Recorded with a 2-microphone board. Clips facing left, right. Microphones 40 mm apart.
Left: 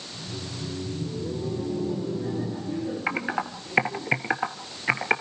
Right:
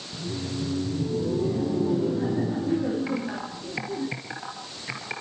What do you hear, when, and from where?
0.1 s laughter: 80° right, 6.5 m
3.1 s typing on a keyboard: 45° left (ahead or behind), 1.4 m